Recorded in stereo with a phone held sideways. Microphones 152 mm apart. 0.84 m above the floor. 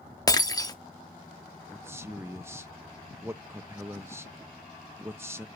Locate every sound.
0.3 s breaking glass: 25° left (ahead or behind), 0.6 m
1.7 s a man speaking: 15° right (ahead or behind), 0.6 m